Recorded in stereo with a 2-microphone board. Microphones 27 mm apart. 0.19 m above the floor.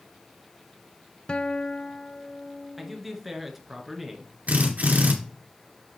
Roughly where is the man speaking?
Centre.